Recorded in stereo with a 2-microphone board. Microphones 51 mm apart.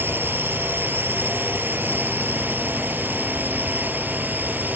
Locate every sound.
0.0 s a drone: 40° right (ahead or behind); by 4.8 s 35° right (ahead or behind)